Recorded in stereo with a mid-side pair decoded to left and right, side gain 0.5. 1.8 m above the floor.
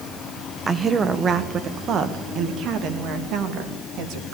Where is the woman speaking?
30° right, 1.3 m; by 4.3 s 70° right, 3.5 m.